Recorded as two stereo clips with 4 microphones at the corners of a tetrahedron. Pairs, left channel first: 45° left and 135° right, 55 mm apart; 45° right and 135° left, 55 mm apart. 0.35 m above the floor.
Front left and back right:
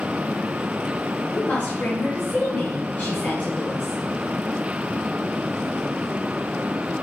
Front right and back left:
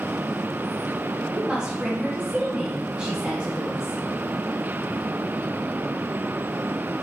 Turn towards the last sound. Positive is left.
turn(degrees=70)